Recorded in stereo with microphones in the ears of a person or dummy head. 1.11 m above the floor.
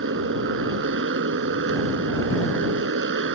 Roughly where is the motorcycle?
Right.